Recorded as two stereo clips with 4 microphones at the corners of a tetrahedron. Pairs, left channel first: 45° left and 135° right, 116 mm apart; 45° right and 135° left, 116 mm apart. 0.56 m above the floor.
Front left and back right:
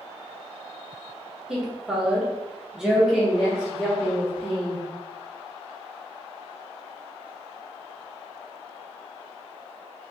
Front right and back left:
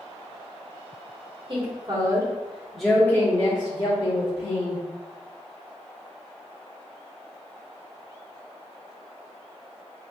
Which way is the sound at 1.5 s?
145° left.